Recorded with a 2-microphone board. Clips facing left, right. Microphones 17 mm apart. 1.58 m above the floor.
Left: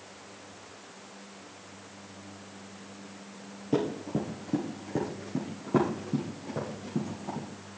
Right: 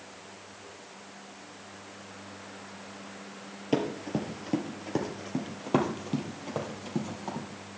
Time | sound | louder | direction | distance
3.7 | running footsteps | even | 45° right (ahead or behind) | 2 m